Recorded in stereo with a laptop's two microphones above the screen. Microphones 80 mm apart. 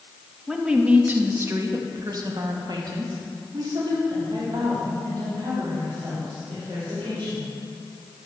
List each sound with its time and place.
0.5 s a woman speaking: 5° right (ahead or behind), 1.2 m; by 7.5 s 65° right (ahead or behind), 3.5 m